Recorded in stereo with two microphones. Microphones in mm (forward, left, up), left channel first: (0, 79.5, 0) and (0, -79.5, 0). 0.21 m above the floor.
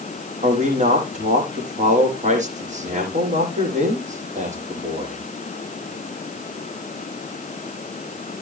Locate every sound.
0.4 s a man speaking: 50° right (ahead or behind), 7.5 m